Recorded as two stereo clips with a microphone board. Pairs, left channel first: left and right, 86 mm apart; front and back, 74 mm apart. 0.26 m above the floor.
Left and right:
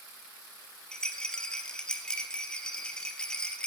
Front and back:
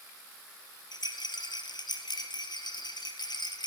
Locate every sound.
0.9 s a rattle: 10° left, 3 m